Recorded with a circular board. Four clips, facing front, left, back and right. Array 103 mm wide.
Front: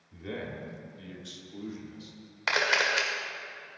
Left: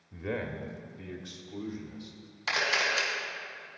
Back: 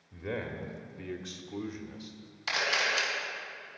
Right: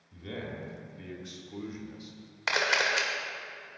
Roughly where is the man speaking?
Left.